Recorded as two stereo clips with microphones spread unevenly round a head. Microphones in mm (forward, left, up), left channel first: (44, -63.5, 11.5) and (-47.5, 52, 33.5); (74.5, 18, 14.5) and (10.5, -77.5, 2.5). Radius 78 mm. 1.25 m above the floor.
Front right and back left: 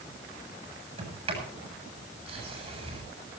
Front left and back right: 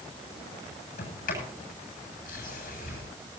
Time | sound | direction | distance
1.0 | a sliding door | 75° left | 7.5 m